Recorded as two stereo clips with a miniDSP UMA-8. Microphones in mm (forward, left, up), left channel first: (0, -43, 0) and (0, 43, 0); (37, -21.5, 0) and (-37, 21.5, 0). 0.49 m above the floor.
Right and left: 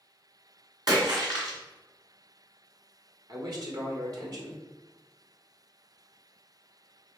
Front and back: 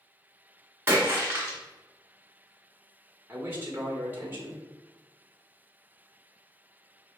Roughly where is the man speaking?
Left.